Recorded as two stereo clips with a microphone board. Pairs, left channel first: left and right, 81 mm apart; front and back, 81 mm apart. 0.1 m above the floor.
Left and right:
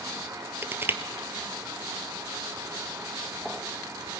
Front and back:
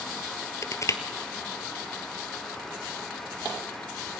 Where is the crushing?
35° right, 1.6 m.